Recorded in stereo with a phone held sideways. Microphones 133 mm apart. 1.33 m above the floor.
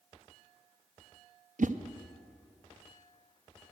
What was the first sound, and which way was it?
A whoosh, 70° right (ahead or behind).